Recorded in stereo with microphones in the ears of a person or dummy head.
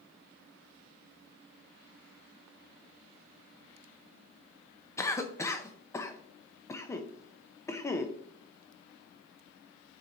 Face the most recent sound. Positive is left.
turn(degrees=10)  # may be behind; listen again after turning